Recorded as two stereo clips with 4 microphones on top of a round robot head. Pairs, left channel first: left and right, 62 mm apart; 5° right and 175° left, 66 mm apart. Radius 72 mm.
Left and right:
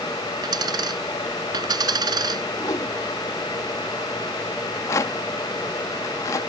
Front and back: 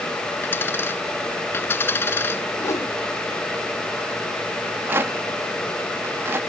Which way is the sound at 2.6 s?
45° left.